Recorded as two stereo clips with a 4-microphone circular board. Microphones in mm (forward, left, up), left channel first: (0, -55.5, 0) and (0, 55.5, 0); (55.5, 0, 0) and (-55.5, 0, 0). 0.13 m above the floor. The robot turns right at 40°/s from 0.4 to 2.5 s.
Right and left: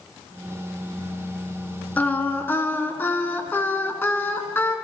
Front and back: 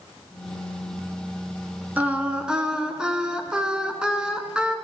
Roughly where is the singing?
Behind right.